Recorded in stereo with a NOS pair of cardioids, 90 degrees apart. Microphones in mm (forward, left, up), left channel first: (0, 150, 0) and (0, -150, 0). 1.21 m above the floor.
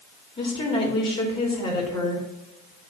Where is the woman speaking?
15° left, 3 m.